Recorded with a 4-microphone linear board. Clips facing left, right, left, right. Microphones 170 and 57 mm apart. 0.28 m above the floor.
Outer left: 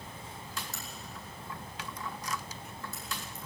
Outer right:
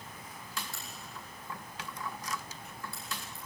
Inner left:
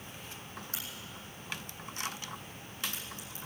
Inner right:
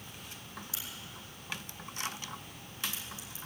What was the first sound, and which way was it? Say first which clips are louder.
A crack: outer left 2 dB, inner left 1 dB; 40° left (ahead or behind).